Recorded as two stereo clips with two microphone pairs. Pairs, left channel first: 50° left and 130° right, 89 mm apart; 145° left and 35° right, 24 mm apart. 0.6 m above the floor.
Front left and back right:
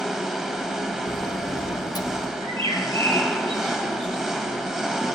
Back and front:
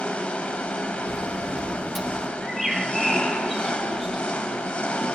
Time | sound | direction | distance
0.0 | an engine running | 140° left | 1.0 m
1.1 | a sliding door | 45° left | 0.6 m
2.4 | a bird | 120° right | 3 m